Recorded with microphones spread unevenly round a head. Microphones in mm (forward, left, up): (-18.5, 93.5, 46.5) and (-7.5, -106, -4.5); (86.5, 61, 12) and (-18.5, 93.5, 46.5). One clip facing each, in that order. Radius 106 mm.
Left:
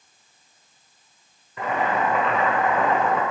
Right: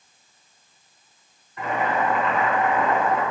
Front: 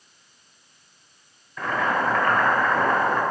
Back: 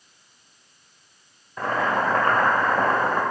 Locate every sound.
1.6 s boiling: 110° left, 2 m